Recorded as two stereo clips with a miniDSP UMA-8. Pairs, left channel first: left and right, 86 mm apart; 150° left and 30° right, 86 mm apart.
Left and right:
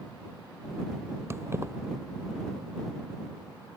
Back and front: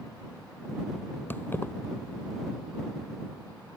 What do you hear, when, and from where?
1.3 s keys jangling: 145° right